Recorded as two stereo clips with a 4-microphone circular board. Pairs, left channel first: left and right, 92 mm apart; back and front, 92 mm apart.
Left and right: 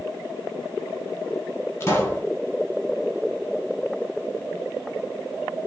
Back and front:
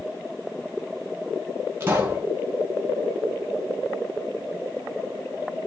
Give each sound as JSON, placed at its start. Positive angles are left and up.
{"t": 1.8, "sound": "a pop", "azimuth_deg": 50, "distance_m": 1.7}